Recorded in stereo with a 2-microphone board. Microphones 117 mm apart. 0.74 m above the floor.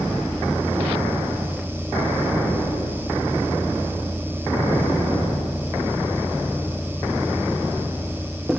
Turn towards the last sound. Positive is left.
turn(degrees=-5)  # may be behind; listen again after turning